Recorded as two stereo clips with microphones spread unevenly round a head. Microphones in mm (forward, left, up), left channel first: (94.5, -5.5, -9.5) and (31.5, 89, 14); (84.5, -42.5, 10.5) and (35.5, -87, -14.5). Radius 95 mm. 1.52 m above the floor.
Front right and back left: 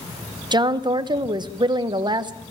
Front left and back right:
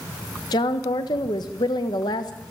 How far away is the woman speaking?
About 1.3 m.